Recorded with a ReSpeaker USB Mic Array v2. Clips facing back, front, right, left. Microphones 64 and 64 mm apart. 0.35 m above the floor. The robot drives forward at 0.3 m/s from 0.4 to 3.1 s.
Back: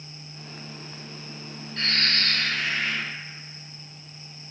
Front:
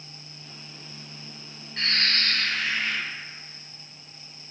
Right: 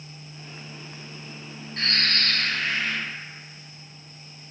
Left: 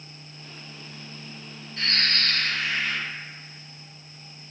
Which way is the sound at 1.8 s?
70° right.